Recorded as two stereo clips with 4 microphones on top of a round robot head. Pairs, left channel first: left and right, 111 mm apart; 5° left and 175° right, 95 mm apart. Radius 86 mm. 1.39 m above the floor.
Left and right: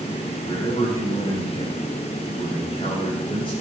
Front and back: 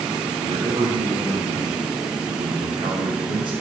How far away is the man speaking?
About 9.5 m.